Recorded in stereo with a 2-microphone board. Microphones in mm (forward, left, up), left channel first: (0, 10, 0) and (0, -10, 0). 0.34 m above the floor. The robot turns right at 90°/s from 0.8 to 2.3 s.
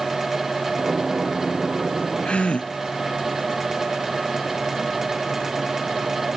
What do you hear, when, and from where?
2.2 s a gasp: 80° left